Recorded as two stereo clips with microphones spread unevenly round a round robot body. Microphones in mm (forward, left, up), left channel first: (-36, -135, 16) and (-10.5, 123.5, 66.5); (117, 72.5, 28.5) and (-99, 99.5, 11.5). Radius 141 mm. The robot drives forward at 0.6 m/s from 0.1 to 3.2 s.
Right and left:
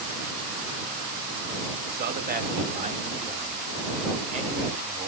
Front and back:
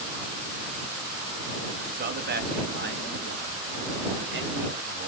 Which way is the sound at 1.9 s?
140° left.